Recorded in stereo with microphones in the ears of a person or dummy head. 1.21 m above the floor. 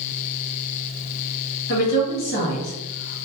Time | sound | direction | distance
1.7 | a woman speaking | 60° left (ahead or behind) | 1.2 m